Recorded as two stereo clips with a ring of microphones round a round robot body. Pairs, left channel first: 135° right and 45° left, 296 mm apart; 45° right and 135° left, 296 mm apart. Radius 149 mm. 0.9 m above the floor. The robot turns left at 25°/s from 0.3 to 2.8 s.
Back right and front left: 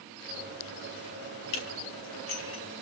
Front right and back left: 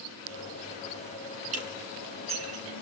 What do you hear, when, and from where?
1.5 s dishes clattering: 155° right, 4 m; by 2.6 s 175° left, 4 m